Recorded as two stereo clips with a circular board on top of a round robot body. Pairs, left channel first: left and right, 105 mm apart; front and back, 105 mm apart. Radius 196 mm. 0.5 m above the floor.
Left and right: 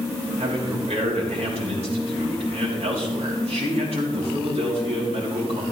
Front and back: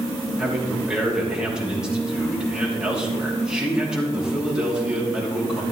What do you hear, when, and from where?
0.4 s a man speaking: 100° right, 4.5 m